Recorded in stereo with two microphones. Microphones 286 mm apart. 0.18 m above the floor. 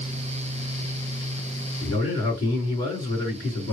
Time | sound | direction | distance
1.8 | a man speaking | 20° left (ahead or behind) | 2.5 m